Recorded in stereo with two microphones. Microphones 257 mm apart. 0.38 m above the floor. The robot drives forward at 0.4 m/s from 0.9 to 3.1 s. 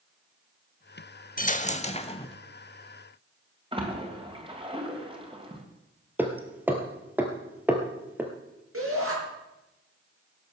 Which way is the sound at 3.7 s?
20° right (ahead or behind).